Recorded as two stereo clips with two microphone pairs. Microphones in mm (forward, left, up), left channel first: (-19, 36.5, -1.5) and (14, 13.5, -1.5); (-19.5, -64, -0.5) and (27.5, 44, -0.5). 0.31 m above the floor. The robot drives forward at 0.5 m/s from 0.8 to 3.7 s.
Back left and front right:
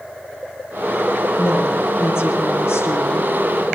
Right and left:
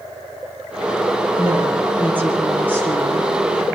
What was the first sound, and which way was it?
A woman speaking, 140° left.